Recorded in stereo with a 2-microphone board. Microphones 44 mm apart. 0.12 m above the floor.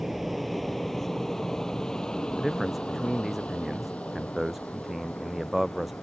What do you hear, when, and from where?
0.0 s an aircraft: 5° right (ahead or behind); by 6.0 s 35° left (ahead or behind)
2.4 s a man speaking: 5° right (ahead or behind)